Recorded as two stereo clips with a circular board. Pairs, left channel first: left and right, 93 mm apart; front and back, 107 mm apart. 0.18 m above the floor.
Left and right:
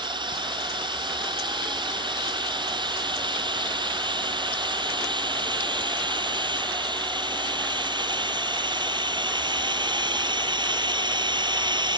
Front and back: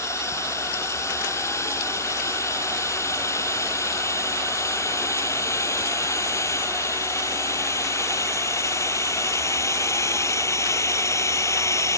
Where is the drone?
60° right.